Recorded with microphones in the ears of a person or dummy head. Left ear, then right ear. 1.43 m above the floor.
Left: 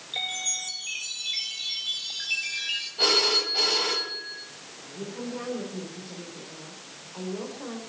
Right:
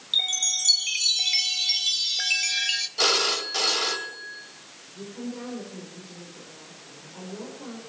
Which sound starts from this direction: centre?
A woman speaking, at 4.9 s.